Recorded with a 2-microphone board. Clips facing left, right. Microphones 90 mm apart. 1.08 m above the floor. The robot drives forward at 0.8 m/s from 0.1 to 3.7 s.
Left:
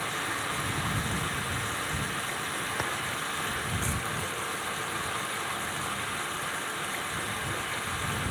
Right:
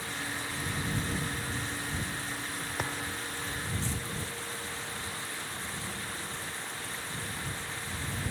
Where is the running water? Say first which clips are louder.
Left 5 dB; 85° left.